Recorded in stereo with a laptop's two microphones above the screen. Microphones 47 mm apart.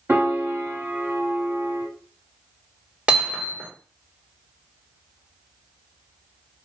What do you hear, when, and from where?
0.1 s a piano: 60° right (ahead or behind), 1.9 m
3.1 s hammering: 25° right (ahead or behind), 1.5 m